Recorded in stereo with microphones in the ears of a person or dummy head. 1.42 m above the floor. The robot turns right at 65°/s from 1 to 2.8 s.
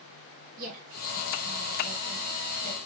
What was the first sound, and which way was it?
A woman speaking, 75° right (ahead or behind).